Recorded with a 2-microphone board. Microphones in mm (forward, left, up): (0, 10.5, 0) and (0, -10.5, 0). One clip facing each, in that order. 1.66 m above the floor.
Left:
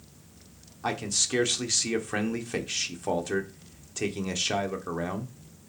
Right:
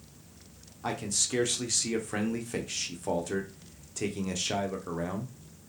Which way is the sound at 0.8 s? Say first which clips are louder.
Left 3 dB; 25° left (ahead or behind).